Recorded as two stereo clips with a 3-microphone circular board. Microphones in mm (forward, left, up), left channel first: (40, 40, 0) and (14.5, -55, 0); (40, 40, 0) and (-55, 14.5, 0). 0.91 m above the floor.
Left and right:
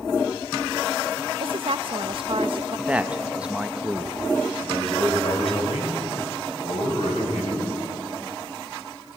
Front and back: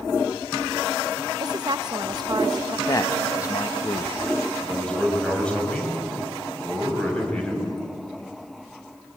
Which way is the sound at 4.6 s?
95° left.